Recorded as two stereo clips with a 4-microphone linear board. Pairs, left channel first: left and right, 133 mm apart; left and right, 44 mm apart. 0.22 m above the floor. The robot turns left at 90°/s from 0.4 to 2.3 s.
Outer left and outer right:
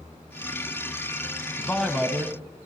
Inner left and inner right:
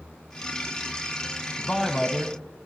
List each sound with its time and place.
1.6 s a man speaking: 30° left, 1.7 m; by 2.7 s 35° right, 1.7 m